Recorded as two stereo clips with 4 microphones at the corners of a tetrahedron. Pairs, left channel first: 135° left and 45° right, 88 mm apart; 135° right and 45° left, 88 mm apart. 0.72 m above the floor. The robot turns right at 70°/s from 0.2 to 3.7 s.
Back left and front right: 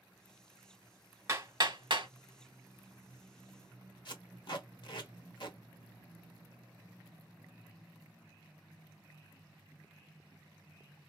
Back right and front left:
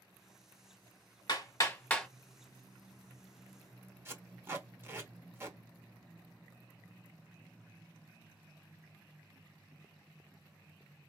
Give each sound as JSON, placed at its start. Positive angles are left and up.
{"t": 1.3, "sound": "hammering", "azimuth_deg": -105, "distance_m": 1.4}
{"t": 4.0, "sound": "tape being pulled", "azimuth_deg": 105, "distance_m": 1.1}